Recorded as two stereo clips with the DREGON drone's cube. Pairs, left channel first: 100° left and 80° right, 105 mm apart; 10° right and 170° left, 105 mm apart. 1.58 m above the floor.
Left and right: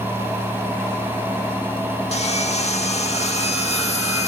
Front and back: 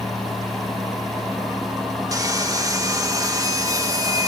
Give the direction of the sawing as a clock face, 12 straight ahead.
8 o'clock.